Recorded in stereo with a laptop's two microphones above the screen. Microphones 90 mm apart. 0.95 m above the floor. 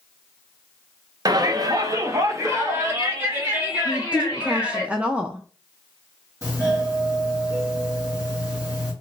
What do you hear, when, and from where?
1.2 s a shout: 45° right (ahead or behind), 0.7 m; by 4.8 s 20° right (ahead or behind), 2 m
3.9 s a woman speaking: 15° right (ahead or behind), 0.5 m
6.4 s a doorbell: 35° right (ahead or behind), 2.5 m